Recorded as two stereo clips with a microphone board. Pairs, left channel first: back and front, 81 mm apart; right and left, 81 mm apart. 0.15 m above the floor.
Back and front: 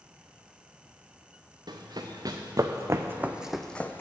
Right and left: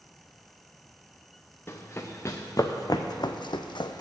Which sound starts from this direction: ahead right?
Running footsteps, at 1.7 s.